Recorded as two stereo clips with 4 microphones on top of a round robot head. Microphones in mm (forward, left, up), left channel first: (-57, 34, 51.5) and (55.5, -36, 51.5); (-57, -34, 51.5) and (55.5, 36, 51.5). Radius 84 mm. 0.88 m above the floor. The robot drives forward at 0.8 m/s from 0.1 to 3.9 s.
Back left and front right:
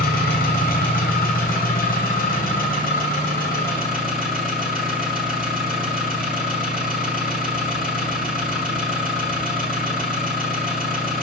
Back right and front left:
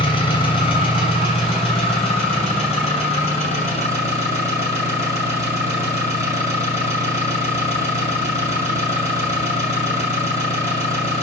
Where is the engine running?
155° left, 3 m; by 11.2 s 170° left, 6 m.